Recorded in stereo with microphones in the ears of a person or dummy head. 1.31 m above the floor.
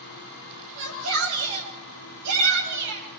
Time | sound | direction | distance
0.8 | a shout | 70° right (ahead or behind) | 8 m